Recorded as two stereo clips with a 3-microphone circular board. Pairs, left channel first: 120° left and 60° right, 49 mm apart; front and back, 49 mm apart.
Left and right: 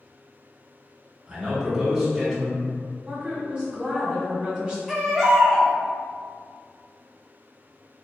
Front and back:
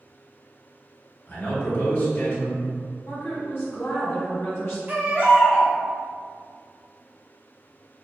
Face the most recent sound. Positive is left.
turn(degrees=-155)